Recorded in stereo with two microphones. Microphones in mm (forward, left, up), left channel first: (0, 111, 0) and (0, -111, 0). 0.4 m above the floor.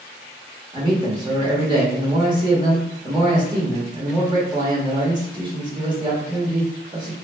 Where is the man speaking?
20° right (ahead or behind), 1.1 m.